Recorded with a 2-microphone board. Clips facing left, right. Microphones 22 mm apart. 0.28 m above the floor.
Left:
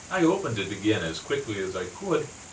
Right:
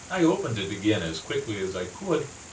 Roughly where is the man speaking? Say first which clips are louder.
Even; centre.